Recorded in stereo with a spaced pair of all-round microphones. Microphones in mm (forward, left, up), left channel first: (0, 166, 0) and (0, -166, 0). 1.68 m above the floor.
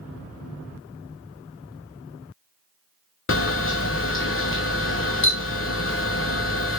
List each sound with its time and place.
3.3 s a camera shutter: 40° left (ahead or behind), 0.5 m